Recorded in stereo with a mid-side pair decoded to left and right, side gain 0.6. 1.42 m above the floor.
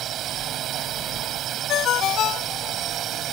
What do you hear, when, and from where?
0.0 s a drone: 55° right
1.7 s a ringtone: 55° left